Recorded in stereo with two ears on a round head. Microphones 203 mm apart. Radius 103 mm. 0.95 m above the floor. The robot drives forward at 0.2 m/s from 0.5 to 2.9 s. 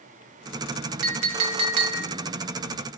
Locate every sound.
1.0 s a clink: 65° right (ahead or behind), 1.1 m; by 2.1 s 75° right (ahead or behind), 1.1 m